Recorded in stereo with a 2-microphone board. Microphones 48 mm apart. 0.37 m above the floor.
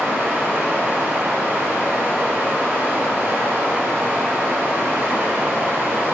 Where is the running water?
45° right (ahead or behind), 1.6 m.